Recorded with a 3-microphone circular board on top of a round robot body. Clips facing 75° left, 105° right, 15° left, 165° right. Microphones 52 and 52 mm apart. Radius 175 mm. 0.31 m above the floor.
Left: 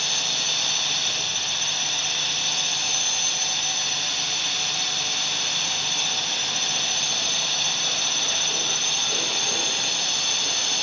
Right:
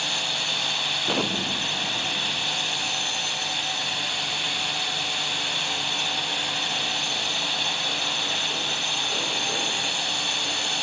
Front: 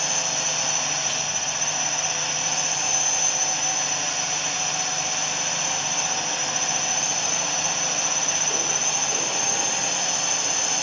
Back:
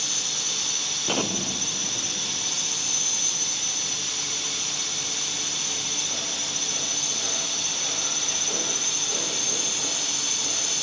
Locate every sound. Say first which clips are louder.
0.0 s a drone: right 1 dB, front 6 dB; 25° right
1.1 s an explosion: right 4 dB, back 2 dB; 125° right